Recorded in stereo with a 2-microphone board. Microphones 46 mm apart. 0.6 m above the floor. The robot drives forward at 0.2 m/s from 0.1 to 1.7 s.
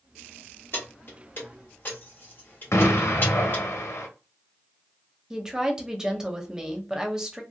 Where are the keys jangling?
50° left (ahead or behind), 1.2 m; by 3.6 s 45° left (ahead or behind), 1.4 m.